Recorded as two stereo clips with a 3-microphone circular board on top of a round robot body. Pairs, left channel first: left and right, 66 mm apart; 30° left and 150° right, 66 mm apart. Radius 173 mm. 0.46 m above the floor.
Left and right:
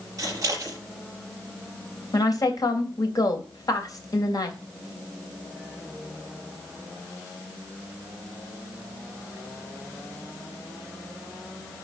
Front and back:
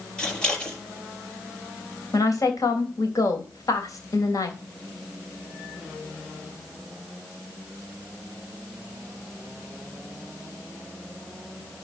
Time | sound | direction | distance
0.2 | scissors | 45° right | 5 m
2.1 | a woman speaking | 65° left | 3 m